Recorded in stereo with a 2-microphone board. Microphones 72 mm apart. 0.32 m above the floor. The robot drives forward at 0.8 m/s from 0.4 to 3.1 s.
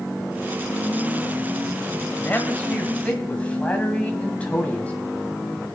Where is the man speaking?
25° left (ahead or behind), 1.2 m; by 5.0 s 20° left (ahead or behind), 1.7 m.